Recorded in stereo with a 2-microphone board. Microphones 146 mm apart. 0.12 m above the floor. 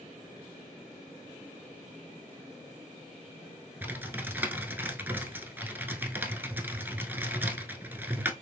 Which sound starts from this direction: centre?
Typing on a keyboard, at 3.8 s.